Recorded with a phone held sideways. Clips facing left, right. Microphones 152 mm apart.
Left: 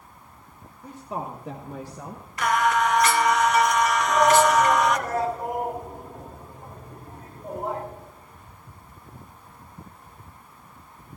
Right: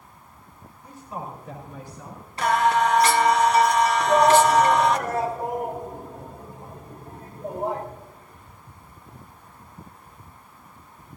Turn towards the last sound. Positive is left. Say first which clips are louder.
# right 2 dB
turn(degrees=-30)  # may be behind; listen again after turning